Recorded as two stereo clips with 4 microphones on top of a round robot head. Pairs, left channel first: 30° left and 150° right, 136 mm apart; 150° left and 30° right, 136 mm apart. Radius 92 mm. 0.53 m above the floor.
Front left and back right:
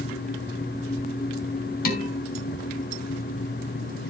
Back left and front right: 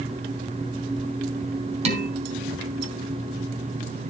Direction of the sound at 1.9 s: 10° left.